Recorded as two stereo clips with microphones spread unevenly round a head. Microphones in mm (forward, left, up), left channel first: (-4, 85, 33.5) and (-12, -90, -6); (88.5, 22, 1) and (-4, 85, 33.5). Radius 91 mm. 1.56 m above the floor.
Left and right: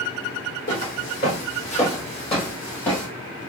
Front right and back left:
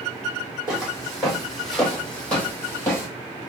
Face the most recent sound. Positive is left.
turn(degrees=35)